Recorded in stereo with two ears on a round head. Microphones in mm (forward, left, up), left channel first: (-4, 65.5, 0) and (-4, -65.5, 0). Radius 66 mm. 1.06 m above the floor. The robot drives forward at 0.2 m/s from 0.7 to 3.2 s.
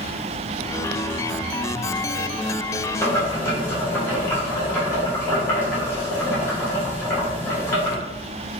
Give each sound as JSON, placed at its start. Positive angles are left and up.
{"t": 3.0, "sound": "boiling", "side_deg": 20, "distance_m": 1.3}